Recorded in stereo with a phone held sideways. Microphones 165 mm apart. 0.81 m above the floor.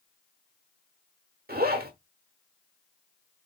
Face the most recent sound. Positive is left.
turn(degrees=-70)  # may be behind; listen again after turning